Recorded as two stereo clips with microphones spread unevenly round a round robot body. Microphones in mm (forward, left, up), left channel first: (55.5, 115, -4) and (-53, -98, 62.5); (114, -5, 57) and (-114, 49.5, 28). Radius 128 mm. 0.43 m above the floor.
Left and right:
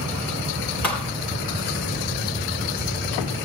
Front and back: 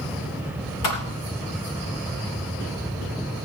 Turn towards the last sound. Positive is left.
turn(degrees=-20)